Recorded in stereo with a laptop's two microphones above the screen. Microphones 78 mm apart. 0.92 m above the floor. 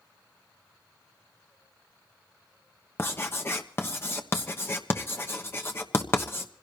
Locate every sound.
3.0 s writing: 30° left (ahead or behind), 1.1 m